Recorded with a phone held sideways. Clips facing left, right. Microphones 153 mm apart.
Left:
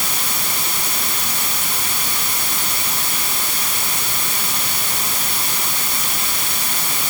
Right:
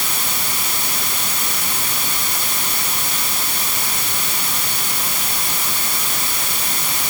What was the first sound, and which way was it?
Only background noise.